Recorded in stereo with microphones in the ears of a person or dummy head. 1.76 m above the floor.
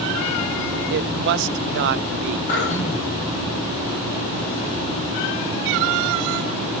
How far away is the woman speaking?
About 0.6 m.